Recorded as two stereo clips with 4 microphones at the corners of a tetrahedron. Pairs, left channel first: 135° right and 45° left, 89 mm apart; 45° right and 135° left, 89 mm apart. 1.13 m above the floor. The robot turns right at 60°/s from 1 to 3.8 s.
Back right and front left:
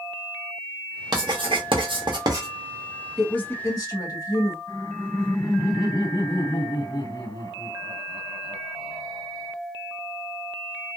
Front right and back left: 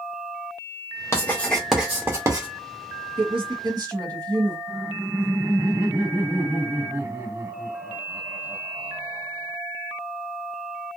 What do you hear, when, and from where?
1.1 s writing: 15° left, 1.0 m; by 2.5 s 95° left, 1.0 m
3.2 s a woman speaking: 140° left, 1.5 m; by 4.6 s straight behind, 1.5 m
4.7 s laughter: 160° right, 2.5 m